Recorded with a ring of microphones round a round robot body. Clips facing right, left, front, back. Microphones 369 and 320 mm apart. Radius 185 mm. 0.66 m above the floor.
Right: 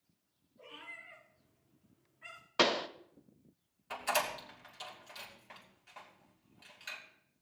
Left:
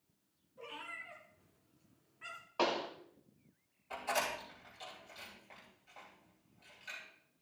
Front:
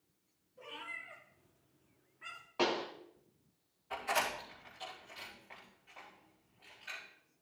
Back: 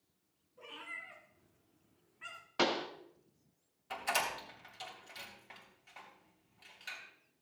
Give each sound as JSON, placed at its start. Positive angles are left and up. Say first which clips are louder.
{"t": 0.6, "sound": "a cat meowing", "louder": "left 4 dB, front 2 dB", "azimuth_deg": 105, "distance_m": 3.5}
{"t": 2.6, "sound": "a pop", "louder": "right 3 dB, even", "azimuth_deg": -120, "distance_m": 0.6}
{"t": 3.9, "sound": "a door slam", "louder": "right 2 dB, front 2 dB", "azimuth_deg": -135, "distance_m": 3.0}